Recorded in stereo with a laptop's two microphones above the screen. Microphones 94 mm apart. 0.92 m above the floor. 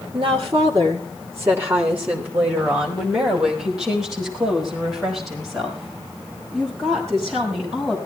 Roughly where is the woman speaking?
Right.